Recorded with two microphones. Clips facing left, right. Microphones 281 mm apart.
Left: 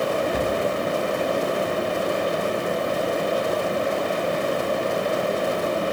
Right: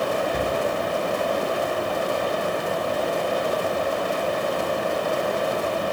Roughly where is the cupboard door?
Centre.